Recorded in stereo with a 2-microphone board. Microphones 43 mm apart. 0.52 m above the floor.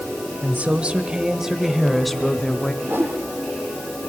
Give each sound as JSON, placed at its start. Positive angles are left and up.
{"t": 0.4, "sound": "a woman speaking", "side_deg": -40, "distance_m": 2.0}
{"t": 2.8, "sound": "a whoosh", "side_deg": -65, "distance_m": 6.5}